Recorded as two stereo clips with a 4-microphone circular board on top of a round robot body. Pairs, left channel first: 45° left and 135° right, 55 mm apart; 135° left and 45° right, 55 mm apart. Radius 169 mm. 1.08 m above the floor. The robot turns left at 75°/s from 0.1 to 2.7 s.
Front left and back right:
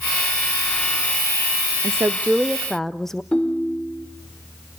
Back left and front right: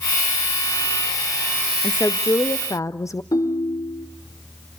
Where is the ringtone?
120° left, 2.5 m.